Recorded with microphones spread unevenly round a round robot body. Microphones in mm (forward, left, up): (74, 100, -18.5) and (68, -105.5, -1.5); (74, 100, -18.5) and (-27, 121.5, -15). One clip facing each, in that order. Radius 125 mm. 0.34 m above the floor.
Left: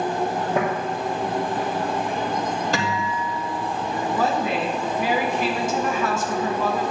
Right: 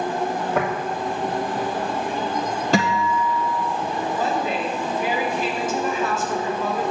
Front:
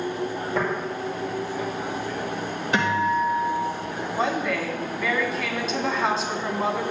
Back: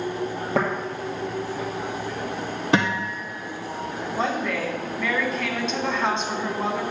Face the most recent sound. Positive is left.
turn(degrees=75)